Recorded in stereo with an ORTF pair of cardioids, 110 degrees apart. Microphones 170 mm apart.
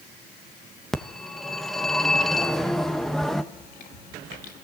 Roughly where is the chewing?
Ahead left.